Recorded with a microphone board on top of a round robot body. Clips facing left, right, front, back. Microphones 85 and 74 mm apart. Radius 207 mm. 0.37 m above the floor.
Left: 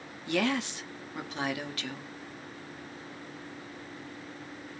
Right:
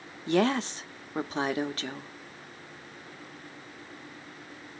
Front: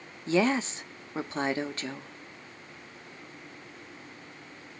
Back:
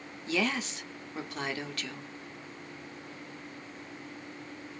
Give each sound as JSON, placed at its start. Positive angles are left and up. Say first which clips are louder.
{"t": 0.3, "sound": "a woman speaking", "louder": "right 4 dB, front 6 dB", "azimuth_deg": -50, "distance_m": 1.1}